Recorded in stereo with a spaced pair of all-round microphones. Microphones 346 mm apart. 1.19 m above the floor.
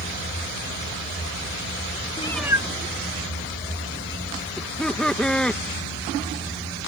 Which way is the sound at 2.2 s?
20° left (ahead or behind).